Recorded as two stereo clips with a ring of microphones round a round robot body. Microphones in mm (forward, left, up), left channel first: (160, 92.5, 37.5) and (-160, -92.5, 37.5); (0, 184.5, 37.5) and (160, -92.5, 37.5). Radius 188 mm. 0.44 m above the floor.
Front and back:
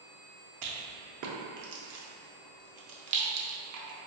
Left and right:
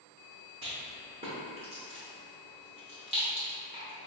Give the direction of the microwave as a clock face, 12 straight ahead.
No microwave in this recording.